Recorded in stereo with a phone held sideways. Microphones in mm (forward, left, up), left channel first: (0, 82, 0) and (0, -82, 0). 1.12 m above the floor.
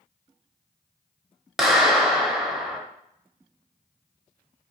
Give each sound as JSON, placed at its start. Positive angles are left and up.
{"t": 1.6, "sound": "a clap", "side_deg": -5, "distance_m": 0.6}